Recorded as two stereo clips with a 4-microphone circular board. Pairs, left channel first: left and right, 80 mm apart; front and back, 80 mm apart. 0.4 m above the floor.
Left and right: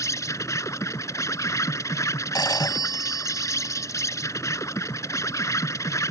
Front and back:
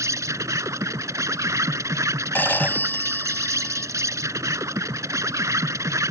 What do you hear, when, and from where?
0.0 s an insect: 135° left
2.4 s a phone ringing: 65° left